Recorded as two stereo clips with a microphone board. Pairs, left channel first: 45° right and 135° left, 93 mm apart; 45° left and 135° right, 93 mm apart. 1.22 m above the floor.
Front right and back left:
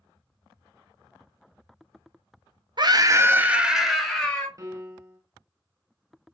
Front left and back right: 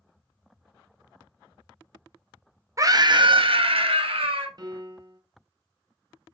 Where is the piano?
175° right, 0.7 m.